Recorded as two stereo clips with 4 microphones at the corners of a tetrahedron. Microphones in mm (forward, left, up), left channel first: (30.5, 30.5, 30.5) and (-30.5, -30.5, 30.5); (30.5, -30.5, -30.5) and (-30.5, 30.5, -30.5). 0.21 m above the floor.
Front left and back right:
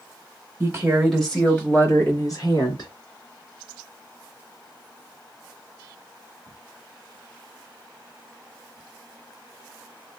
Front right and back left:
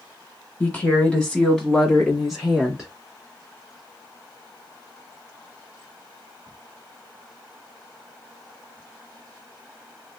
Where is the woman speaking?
100° right, 1.4 m; by 2.9 s 50° left, 2.5 m.